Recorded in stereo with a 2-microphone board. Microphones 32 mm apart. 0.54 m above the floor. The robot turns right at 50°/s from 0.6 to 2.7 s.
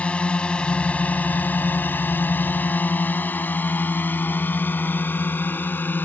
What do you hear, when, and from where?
0.0 s a drone: 40° left (ahead or behind); by 6.0 s 75° left (ahead or behind)